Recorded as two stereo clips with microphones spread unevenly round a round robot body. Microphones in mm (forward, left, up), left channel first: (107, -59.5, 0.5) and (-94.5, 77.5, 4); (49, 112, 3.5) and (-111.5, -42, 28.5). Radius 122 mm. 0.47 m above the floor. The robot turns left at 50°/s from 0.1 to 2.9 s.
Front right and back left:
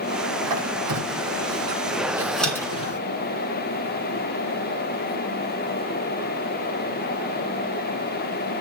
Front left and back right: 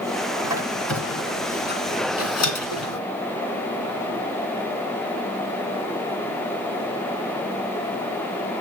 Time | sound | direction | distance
0.4 | a squeak | 155° left | 3 m